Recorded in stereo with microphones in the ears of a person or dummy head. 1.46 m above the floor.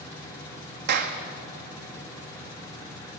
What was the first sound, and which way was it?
A clap, 55° right (ahead or behind).